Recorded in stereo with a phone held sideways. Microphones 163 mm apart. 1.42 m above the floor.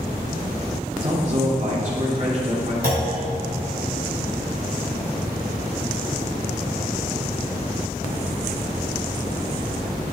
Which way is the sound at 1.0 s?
50° right (ahead or behind).